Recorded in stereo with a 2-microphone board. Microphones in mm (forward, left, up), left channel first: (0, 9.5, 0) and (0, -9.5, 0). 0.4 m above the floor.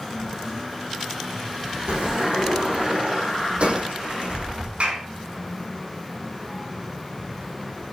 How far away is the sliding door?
About 6.5 m.